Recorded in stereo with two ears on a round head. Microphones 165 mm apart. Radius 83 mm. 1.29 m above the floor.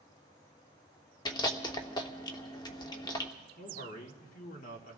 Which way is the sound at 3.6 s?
50° left (ahead or behind).